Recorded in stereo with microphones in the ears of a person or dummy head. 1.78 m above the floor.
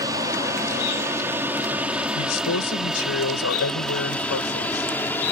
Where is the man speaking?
80° left.